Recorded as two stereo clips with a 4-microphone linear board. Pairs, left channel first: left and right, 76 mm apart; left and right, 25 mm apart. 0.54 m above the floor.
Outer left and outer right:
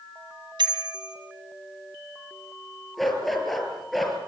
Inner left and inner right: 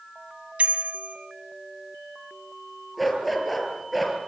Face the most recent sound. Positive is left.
turn(degrees=0)  # may be behind; listen again after turning